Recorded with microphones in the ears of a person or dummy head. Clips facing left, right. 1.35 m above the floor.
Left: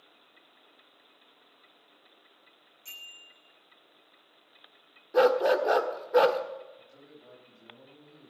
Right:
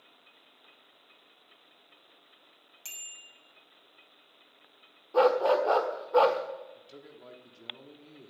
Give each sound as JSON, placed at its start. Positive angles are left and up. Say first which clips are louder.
{"t": 2.9, "sound": "a bicycle bell", "louder": "left 1 dB", "side_deg": -85, "distance_m": 6.5}
{"t": 5.1, "sound": "a dog barking", "louder": "left 1 dB", "side_deg": 15, "distance_m": 1.4}
{"t": 6.8, "sound": "a man speaking", "louder": "right 3 dB", "side_deg": -80, "distance_m": 3.0}